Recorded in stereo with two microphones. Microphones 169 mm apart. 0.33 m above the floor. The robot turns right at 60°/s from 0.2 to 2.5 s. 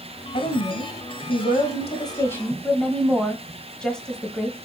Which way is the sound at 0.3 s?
45° left.